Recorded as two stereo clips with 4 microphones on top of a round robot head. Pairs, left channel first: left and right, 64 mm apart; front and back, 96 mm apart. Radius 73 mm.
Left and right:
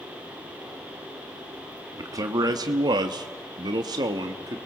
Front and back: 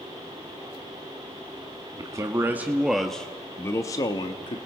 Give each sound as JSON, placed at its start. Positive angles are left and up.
{"t": 2.0, "sound": "a man speaking", "azimuth_deg": -125, "distance_m": 1.3}